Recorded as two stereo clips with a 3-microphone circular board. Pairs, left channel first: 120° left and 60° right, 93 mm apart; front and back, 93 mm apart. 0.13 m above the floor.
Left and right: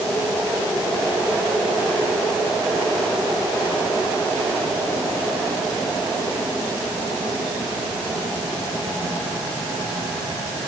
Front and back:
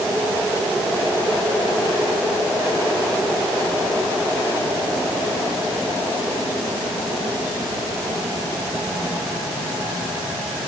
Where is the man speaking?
I don't hear a man speaking.